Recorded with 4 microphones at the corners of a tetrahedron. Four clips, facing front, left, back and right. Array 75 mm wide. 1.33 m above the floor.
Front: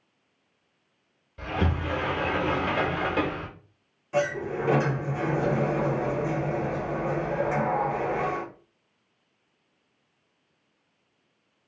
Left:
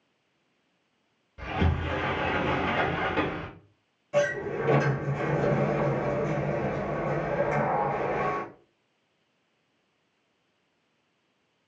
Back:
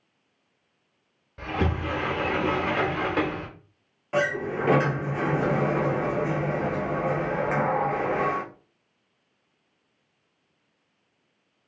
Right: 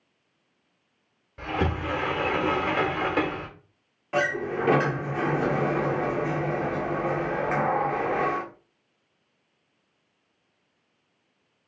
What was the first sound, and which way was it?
A sliding door, 130° right.